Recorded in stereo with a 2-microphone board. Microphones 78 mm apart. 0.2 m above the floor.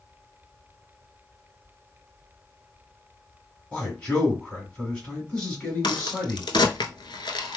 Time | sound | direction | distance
3.7 | a man speaking | 10° left (ahead or behind) | 2 m
5.8 | a crack | 75° left (ahead or behind) | 0.6 m